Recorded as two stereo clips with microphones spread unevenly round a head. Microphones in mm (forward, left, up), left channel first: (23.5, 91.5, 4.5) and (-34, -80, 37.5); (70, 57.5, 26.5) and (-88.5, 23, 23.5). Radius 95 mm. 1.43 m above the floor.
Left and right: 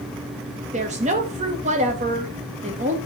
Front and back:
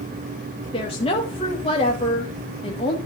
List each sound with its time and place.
0.7 s a woman speaking: 55° right, 1.7 m